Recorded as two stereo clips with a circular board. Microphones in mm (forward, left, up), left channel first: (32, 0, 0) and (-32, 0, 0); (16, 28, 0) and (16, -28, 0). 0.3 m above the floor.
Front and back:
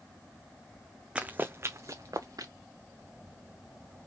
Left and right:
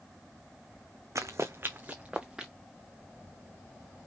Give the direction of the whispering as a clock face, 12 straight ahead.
No whispering in this recording.